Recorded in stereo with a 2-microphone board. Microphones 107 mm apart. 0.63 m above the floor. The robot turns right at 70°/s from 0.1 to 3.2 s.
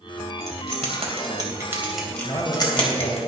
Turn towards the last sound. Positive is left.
turn(degrees=115)